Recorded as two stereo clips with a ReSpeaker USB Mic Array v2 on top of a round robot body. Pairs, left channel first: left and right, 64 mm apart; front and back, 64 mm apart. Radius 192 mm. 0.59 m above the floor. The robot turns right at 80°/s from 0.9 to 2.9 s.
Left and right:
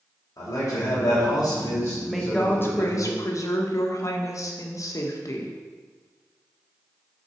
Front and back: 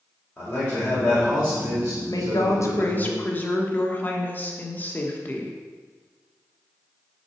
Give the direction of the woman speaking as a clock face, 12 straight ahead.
12 o'clock.